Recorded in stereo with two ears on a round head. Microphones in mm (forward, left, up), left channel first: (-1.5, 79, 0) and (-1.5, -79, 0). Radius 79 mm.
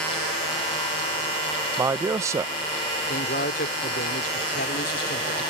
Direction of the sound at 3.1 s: 55° left (ahead or behind).